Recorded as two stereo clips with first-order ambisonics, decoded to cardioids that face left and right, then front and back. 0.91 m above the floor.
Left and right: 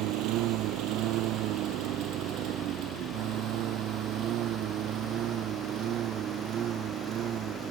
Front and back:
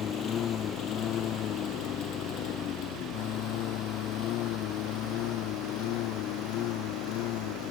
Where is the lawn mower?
55° right; by 7.7 s 35° right.